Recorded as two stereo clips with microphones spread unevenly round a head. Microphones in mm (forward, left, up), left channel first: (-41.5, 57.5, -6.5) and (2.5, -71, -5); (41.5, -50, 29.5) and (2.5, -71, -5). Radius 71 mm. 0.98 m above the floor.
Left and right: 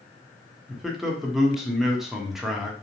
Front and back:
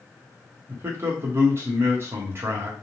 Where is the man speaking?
160° right, 0.8 m.